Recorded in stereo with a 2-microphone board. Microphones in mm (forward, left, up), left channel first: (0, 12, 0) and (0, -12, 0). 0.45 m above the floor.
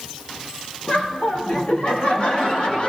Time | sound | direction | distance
0.9 | laughter | 75° left (ahead or behind) | 3.5 m